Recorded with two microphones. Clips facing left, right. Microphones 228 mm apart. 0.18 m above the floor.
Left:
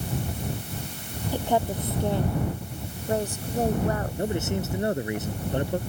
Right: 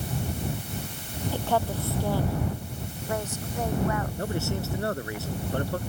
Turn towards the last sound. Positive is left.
turn(degrees=20)  # may be behind; listen again after turning